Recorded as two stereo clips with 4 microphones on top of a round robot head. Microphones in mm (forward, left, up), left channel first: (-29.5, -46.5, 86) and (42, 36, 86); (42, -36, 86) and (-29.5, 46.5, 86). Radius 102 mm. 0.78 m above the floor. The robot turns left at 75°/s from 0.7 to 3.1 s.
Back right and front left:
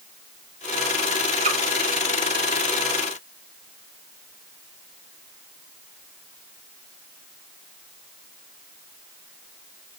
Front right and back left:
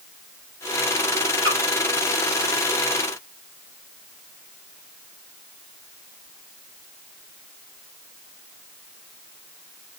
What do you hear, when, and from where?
1.4 s a splash: 85° left, 4 m; by 1.6 s 70° left, 4 m